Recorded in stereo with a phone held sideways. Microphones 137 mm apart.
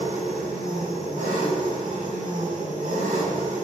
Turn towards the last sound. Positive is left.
turn(degrees=-75)  # may be behind; listen again after turning